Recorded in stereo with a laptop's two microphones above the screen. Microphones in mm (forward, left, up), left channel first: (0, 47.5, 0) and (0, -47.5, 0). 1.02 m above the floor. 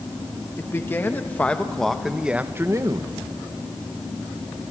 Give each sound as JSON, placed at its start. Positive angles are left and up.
{"t": 0.6, "sound": "a man speaking", "side_deg": 25, "distance_m": 1.3}